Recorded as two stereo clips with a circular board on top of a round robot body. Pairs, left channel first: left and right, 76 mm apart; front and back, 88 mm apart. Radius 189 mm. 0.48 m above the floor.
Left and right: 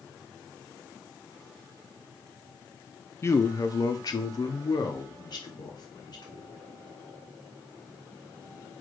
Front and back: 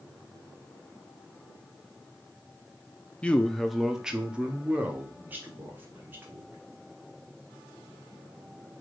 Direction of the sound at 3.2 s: 65° left.